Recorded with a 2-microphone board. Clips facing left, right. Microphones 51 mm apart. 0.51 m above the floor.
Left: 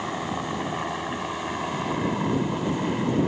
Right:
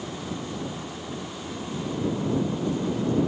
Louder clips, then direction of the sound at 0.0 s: Left 5 dB; 70° left (ahead or behind).